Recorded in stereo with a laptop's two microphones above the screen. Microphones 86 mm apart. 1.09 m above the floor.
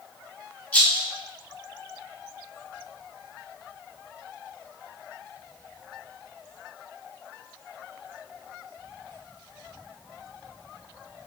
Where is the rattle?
15° left (ahead or behind), 0.7 m.